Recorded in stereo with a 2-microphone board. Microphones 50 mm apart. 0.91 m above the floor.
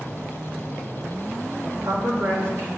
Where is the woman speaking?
75° right (ahead or behind), 2.5 m.